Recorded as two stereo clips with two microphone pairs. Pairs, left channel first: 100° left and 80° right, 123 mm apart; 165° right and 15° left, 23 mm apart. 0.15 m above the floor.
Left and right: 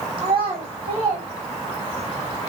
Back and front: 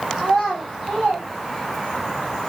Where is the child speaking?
35° right, 7 m; by 2.1 s 45° right, 7.5 m.